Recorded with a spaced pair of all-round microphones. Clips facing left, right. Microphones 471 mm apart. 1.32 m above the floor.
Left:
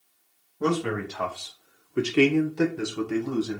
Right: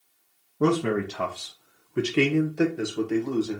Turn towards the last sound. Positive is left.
turn(degrees=30)  # may be behind; listen again after turning